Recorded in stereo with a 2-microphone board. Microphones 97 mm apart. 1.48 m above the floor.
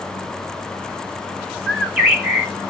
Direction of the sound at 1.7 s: 10° right (ahead or behind).